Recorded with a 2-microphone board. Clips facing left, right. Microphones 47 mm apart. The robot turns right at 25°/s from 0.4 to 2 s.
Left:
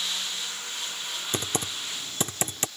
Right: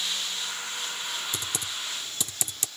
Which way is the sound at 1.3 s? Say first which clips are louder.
Left 3 dB; 45° left (ahead or behind).